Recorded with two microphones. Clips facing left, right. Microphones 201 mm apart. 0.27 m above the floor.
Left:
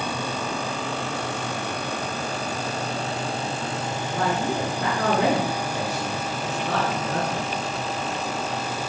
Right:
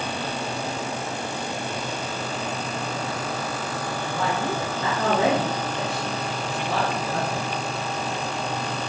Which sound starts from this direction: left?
A man speaking, at 4.1 s.